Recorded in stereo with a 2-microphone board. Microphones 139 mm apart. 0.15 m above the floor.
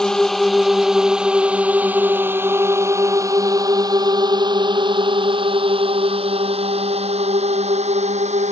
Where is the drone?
5° left (ahead or behind); by 8.5 s 55° right (ahead or behind).